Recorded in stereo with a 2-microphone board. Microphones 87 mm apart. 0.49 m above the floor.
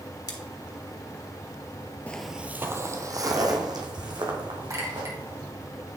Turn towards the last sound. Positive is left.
turn(degrees=-40)  # may be behind; listen again after turning